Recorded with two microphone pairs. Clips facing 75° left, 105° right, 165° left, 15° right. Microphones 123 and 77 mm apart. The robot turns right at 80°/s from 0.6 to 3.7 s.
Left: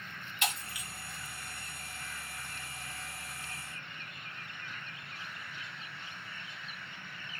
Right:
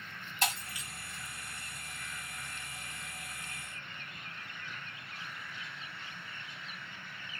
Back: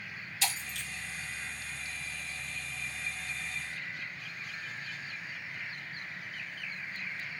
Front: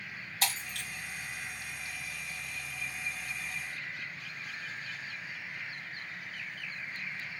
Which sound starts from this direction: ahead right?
Breaking glass, at 0.4 s.